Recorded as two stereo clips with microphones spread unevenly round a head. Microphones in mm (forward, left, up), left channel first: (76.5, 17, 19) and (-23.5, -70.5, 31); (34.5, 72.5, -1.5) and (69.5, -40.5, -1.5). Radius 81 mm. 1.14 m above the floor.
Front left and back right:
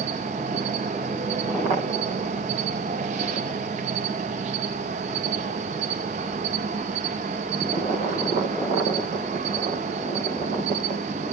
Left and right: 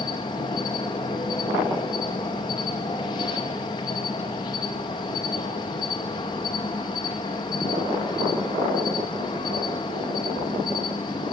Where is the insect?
175° left, 0.7 m.